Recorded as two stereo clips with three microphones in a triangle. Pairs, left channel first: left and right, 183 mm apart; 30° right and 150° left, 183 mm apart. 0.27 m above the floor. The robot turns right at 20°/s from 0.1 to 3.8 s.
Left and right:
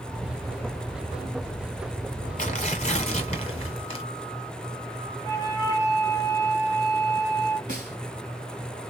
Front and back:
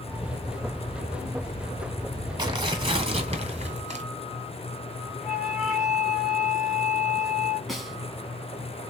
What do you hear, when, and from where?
2.4 s tearing paper: 105° left, 1.4 m; by 4.0 s 130° left, 1.4 m
5.2 s a flute: 75° left, 1.1 m
7.7 s a snare drum: 120° right, 1.2 m